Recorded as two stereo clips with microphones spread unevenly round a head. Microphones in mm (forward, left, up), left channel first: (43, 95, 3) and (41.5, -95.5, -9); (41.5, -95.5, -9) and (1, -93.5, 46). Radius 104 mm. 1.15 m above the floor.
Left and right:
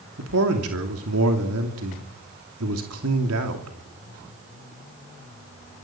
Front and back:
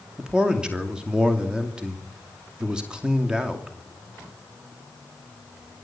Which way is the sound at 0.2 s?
105° right.